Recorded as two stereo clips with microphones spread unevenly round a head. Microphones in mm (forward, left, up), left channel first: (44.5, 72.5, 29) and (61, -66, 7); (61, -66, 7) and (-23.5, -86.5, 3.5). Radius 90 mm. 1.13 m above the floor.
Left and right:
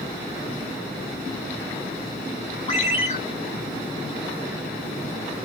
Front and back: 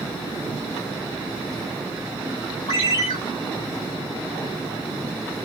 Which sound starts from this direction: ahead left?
A ringtone, at 2.7 s.